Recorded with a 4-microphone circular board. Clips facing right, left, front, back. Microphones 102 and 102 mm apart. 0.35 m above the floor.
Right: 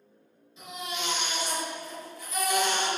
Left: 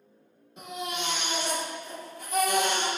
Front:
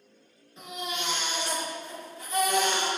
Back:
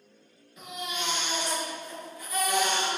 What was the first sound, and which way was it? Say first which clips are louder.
A baby crying: left 2 dB, front 1 dB; 60° left.